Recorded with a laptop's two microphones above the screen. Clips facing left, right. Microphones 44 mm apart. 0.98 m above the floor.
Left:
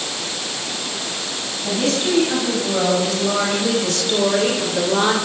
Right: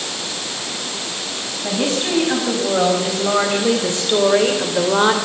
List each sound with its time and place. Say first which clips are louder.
1.6 s a woman speaking: even; 25° right (ahead or behind), 6.5 m; by 5.1 s 20° right (ahead or behind), 3 m